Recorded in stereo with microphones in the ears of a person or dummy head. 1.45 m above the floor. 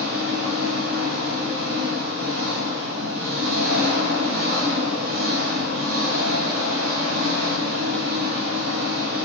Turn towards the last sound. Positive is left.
turn(degrees=-70)  # may be behind; listen again after turning